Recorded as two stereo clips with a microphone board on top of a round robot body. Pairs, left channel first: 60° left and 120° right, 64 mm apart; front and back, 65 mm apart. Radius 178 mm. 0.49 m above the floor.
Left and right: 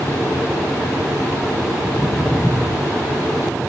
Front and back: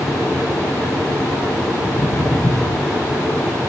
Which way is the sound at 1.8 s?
10° right.